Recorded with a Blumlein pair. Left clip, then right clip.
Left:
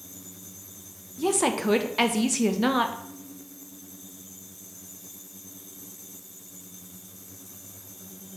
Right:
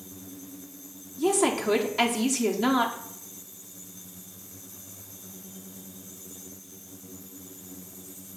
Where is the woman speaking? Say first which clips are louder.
Right 1 dB; 15° left, 1.4 m.